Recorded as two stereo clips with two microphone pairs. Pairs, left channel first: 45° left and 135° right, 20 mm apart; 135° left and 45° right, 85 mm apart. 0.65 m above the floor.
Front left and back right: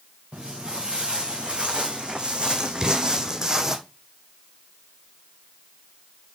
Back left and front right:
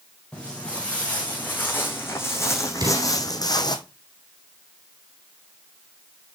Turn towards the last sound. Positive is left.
turn(degrees=-80)